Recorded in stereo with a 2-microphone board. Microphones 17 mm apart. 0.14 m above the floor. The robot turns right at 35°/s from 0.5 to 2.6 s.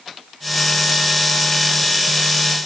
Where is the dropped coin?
No dropped coin in this recording.